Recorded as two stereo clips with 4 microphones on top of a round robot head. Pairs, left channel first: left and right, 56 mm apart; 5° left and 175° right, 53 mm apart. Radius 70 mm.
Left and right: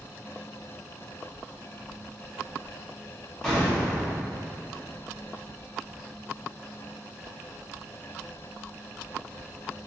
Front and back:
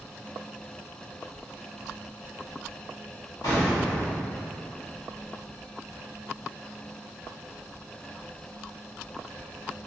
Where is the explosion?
10° left, 0.9 m.